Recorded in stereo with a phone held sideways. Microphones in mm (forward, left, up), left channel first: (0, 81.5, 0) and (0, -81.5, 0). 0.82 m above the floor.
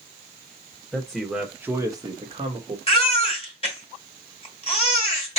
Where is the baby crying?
35° left (ahead or behind), 2.5 m.